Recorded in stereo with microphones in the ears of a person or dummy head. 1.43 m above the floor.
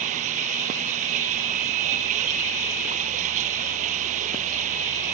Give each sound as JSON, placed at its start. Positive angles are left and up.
{"t": 0.0, "sound": "running water", "side_deg": -45}